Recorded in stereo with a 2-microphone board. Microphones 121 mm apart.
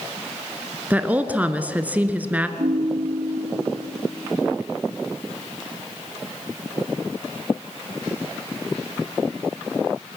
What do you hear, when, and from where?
0.9 s a woman speaking: 15° right (ahead or behind), 1.3 m
2.6 s a ringtone: 70° right (ahead or behind), 3.5 m